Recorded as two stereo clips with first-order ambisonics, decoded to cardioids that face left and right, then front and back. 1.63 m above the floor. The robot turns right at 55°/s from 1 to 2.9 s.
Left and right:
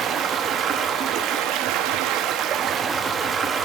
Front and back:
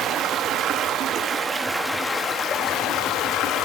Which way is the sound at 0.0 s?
135° right.